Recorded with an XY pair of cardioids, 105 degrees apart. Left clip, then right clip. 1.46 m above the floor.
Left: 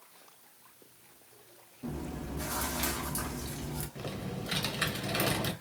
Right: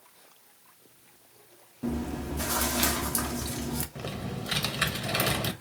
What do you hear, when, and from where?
1.8 s chewing: 60° right, 0.6 m
4.0 s typing on a keyboard: 35° right, 0.8 m